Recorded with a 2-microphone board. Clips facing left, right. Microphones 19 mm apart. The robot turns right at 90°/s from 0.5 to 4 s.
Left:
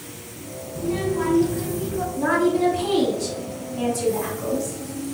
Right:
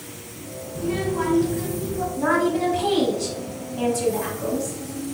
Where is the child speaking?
70° right, 0.9 m; by 2.1 s 50° left, 0.9 m.